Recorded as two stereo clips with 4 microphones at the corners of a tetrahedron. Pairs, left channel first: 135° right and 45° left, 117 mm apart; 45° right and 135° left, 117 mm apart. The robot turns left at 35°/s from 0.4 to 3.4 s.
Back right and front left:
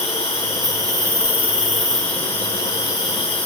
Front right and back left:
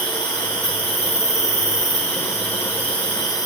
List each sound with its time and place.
0.0 s an insect: 5° left, 1.1 m; by 3.5 s 100° right, 1.1 m